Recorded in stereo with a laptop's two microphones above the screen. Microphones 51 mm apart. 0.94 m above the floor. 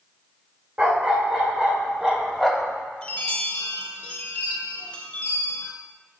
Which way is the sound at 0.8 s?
30° right (ahead or behind).